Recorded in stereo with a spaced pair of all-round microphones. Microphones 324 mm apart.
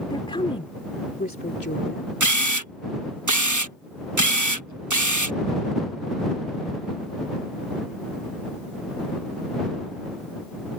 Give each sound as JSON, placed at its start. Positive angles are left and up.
{"t": 0.1, "sound": "a woman speaking", "side_deg": 15}
{"t": 2.2, "sound": "a camera shutter", "side_deg": -65}